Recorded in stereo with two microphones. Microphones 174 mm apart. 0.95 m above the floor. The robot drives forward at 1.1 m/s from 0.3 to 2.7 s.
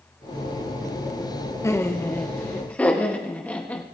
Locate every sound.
1.6 s laughter: 15° left (ahead or behind), 0.8 m; by 3.9 s 10° left (ahead or behind), 1.6 m